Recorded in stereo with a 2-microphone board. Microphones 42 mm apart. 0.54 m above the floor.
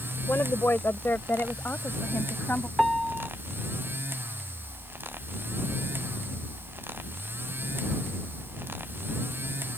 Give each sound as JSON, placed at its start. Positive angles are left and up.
{"t": 0.3, "sound": "a woman speaking", "side_deg": 60}
{"t": 2.8, "sound": "a piano", "side_deg": 5}